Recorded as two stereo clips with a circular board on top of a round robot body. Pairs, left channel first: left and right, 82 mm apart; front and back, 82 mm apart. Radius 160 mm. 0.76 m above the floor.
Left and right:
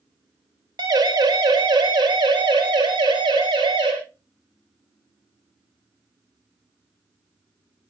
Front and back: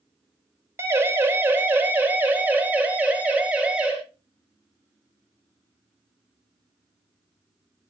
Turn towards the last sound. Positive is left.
turn(degrees=-105)